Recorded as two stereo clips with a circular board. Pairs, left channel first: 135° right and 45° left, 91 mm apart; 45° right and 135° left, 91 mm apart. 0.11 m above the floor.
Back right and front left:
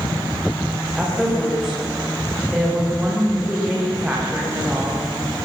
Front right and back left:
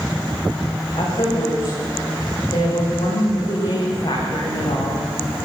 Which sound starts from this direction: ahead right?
A woman speaking, at 0.9 s.